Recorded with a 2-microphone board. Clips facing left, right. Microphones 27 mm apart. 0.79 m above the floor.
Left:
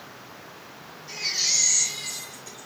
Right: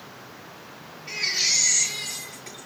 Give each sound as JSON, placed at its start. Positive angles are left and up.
{"t": 1.1, "sound": "a baby crying", "side_deg": -60, "distance_m": 8.5}